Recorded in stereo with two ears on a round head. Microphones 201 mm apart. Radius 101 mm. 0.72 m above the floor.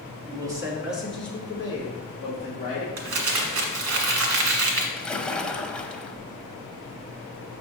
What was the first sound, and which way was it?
A man speaking, 25° right (ahead or behind).